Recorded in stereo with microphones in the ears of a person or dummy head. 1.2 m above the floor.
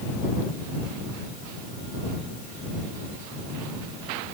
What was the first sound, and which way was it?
Only background noise.